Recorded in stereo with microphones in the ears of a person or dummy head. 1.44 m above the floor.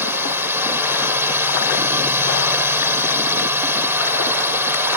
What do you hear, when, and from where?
0.0 s a drone: 10° right (ahead or behind)